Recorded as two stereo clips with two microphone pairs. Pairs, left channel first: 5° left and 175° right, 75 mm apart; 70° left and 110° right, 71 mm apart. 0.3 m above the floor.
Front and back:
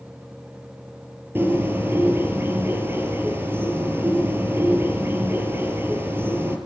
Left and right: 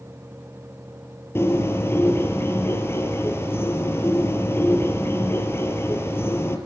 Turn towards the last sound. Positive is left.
turn(degrees=125)